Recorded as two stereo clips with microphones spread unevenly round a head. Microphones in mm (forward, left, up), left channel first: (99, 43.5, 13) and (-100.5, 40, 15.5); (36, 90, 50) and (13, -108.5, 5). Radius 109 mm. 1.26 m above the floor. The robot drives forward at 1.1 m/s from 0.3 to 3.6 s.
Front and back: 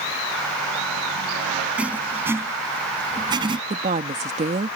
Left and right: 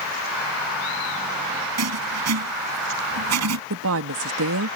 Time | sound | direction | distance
1.8 | writing | 95° right | ?
3.7 | a woman speaking | 115° right | ?